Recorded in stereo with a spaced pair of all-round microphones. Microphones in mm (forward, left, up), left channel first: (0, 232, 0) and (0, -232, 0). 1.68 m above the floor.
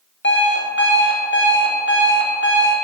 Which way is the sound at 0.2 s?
25° left (ahead or behind).